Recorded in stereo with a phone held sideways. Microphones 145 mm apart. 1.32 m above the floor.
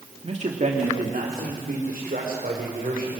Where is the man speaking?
45° right (ahead or behind), 2 m; by 3.2 s 75° right (ahead or behind), 5 m.